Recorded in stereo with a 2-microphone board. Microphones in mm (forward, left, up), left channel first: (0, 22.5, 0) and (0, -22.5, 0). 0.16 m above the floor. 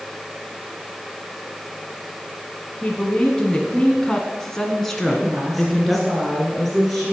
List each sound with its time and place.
2.8 s a woman speaking: 25° left (ahead or behind), 1.5 m; by 6.1 s centre (ahead or behind), 2.5 m
5.1 s a woman speaking: 5° left (ahead or behind), 5.5 m